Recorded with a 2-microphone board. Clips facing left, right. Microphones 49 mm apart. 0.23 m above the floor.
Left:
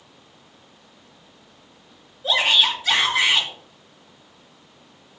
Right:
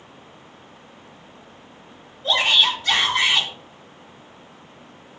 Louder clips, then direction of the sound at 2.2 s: Even; 5° left (ahead or behind).